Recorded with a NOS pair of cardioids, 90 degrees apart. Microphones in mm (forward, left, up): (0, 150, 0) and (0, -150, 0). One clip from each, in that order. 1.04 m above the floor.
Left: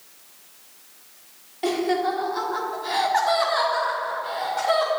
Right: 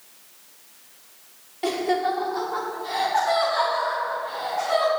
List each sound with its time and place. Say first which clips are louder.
1.6 s laughter: even; 5° right, 2 m; by 4.9 s 70° left, 3.5 m